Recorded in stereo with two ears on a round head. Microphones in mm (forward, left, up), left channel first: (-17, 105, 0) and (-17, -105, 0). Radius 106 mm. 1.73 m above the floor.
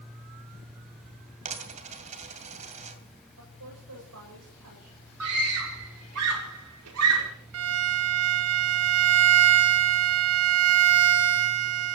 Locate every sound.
1.4 s a dropped coin: 30° right (ahead or behind), 2.5 m
3.4 s a woman speaking: 65° right (ahead or behind), 8.5 m
5.2 s a scream: 70° right (ahead or behind), 5.5 m
7.5 s a violin: 70° right (ahead or behind), 1.2 m